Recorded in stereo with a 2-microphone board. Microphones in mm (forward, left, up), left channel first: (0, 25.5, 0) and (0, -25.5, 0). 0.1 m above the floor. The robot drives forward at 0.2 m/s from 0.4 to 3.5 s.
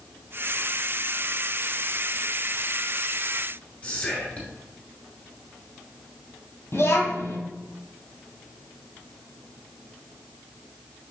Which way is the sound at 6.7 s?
65° left (ahead or behind).